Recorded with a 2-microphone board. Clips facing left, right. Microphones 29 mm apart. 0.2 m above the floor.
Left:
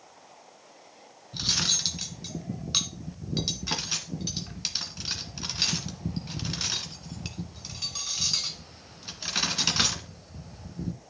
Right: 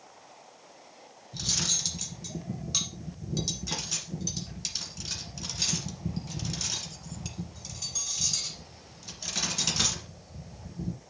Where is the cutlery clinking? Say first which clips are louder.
Left 4 dB; 35° left (ahead or behind), 1.5 m.